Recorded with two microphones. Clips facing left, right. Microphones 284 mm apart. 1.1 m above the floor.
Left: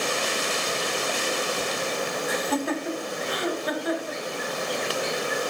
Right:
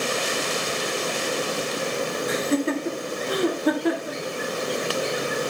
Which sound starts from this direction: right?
Laughter, at 2.3 s.